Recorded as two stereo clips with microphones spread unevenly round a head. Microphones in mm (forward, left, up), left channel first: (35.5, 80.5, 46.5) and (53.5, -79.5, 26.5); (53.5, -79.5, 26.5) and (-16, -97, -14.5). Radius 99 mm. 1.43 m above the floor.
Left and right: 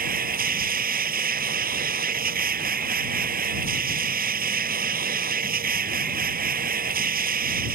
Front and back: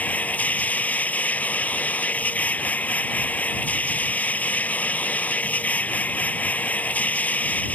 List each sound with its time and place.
0.0 s a machine running: 50° right